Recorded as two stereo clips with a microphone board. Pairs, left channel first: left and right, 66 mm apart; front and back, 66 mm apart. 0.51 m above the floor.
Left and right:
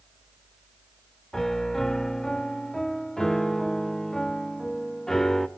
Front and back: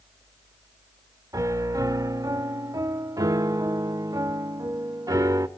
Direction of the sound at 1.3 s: 175° left.